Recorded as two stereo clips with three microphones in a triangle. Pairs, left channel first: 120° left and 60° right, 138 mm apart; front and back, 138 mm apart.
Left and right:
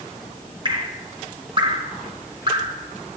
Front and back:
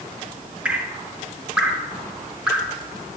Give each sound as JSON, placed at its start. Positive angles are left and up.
{"t": 0.7, "sound": "dripping", "azimuth_deg": -100, "distance_m": 1.8}